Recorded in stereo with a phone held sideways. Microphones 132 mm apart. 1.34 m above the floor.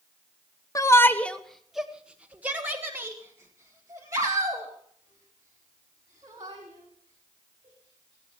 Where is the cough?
No cough in this recording.